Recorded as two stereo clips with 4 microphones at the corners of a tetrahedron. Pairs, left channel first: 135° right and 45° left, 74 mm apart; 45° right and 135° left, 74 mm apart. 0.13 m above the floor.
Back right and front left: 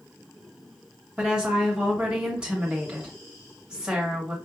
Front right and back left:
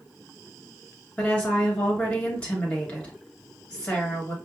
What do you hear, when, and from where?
1.2 s a woman speaking: 10° right, 1.6 m